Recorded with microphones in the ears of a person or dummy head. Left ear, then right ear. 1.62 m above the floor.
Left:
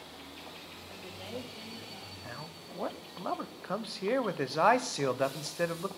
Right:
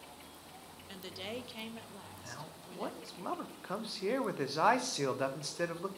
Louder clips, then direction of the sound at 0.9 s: Right 1 dB; 60° right (ahead or behind).